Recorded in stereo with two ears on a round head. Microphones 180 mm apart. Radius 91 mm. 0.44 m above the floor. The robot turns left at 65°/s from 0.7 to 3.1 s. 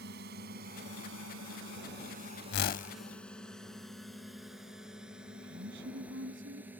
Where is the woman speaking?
65° right (ahead or behind).